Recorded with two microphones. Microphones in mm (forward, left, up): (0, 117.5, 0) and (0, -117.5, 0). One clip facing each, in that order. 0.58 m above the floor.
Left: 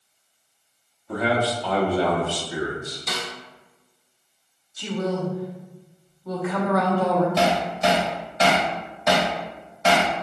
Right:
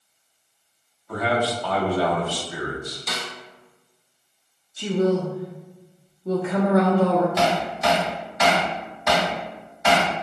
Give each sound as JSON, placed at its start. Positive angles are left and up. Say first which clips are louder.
{"t": 1.1, "sound": "a man speaking", "louder": "left 1 dB", "side_deg": 20, "distance_m": 0.8}
{"t": 3.1, "sound": "a snare drum", "louder": "left 4 dB", "side_deg": 0, "distance_m": 1.0}
{"t": 4.8, "sound": "a woman speaking", "louder": "right 5 dB", "side_deg": -25, "distance_m": 0.7}
{"t": 7.4, "sound": "hammering", "louder": "left 1 dB", "side_deg": 30, "distance_m": 1.4}